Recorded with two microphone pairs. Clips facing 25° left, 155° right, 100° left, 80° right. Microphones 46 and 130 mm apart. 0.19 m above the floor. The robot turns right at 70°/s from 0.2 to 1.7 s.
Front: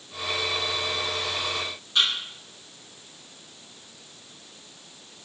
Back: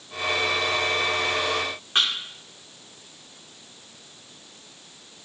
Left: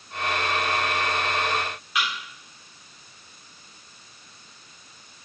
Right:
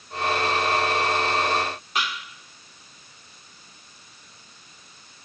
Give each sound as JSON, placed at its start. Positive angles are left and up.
{"t": 1.9, "sound": "a thud", "azimuth_deg": -120, "distance_m": 4.0}